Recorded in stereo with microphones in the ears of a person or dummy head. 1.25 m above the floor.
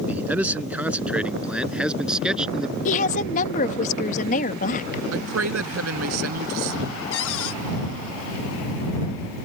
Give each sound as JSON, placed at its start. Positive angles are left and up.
{"t": 0.1, "sound": "a man speaking", "side_deg": -10}
{"t": 2.9, "sound": "a woman speaking", "side_deg": 45}
{"t": 5.1, "sound": "a man speaking", "side_deg": -75}
{"t": 7.1, "sound": "a cupboard door", "side_deg": 75}